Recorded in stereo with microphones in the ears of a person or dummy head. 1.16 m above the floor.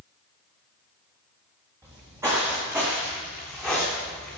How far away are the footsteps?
About 4 m.